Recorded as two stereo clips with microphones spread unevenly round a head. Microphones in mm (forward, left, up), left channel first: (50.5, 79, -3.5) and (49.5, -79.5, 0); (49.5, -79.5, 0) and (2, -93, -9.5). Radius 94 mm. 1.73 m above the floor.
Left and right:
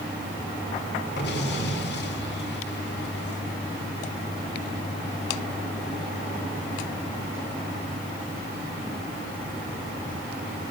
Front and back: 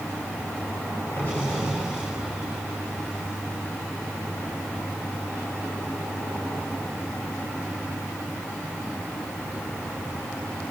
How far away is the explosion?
About 5.5 m.